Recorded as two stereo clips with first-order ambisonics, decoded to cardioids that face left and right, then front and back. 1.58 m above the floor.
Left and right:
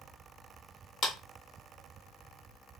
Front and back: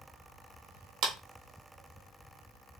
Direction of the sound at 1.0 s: 145° left.